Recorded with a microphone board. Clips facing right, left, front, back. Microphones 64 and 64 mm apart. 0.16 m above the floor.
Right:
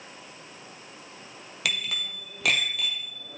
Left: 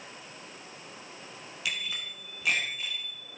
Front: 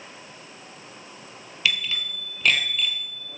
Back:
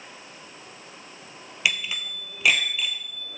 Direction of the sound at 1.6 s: 110° right.